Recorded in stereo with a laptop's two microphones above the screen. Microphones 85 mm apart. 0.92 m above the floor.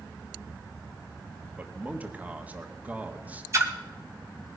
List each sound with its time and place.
1.6 s a man speaking: 20° right (ahead or behind), 1.5 m
3.5 s a splash: 35° right (ahead or behind), 2.5 m